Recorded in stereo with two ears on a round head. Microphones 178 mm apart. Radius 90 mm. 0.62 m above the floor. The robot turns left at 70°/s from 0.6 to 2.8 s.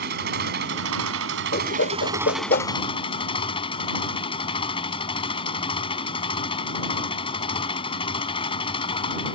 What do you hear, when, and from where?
0.0 s an engine running: 55° right; by 9.3 s 150° left
1.5 s a whoosh: 50° left (ahead or behind); by 2.7 s 35° left (ahead or behind)